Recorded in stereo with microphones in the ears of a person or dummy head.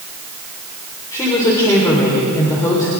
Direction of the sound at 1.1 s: 15° left (ahead or behind).